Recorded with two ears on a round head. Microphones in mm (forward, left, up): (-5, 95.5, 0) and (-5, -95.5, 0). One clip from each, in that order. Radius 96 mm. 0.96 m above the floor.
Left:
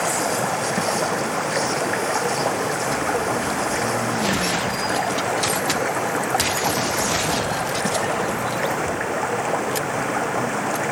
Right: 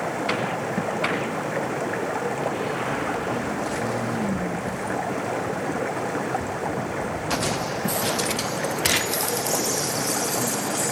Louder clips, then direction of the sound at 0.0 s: Left 4 dB; 40° left (ahead or behind).